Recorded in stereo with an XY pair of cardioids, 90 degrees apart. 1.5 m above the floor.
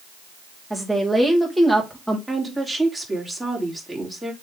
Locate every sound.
0.7 s a woman speaking: 5° left, 2 m
2.3 s a woman speaking: straight ahead, 3.5 m